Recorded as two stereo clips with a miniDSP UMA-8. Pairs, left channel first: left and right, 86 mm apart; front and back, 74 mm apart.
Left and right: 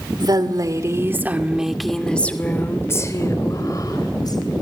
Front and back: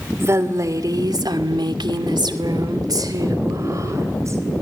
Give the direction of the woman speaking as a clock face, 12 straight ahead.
4 o'clock.